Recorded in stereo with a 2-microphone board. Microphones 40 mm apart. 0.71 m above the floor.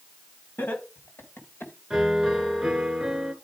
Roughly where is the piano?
Centre.